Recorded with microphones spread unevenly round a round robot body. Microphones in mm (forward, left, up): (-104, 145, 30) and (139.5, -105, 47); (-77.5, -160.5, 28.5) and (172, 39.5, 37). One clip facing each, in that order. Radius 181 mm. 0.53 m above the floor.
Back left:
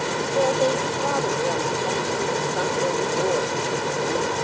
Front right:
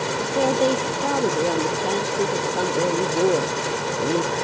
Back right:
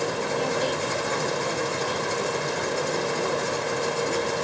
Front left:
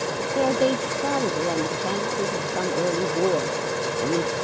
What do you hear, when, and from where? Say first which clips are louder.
0.3 s a woman speaking: front right 1 dB, front left 9 dB; 5° left